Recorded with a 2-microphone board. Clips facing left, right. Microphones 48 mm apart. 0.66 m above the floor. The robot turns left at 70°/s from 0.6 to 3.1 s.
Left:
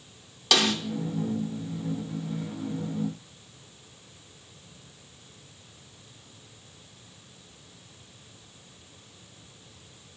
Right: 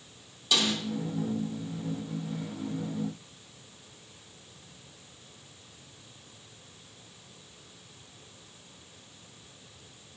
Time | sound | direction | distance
0.5 | a snare drum | 70° left (ahead or behind) | 1.0 m